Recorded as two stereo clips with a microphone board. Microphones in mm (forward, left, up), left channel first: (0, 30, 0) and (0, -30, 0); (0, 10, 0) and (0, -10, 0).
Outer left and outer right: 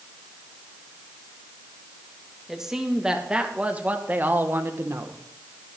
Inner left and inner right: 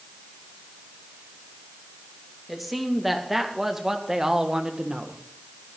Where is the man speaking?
10° right (ahead or behind), 2 m; by 5.2 s 55° right (ahead or behind), 1.5 m.